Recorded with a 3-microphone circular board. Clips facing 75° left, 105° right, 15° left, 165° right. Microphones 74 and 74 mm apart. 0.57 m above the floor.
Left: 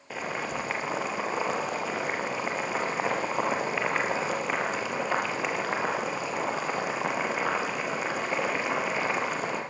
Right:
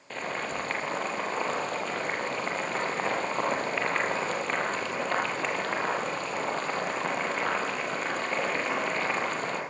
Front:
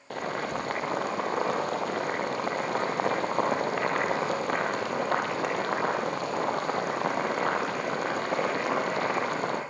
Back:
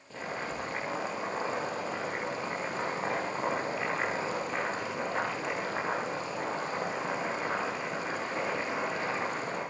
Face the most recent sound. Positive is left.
turn(degrees=-10)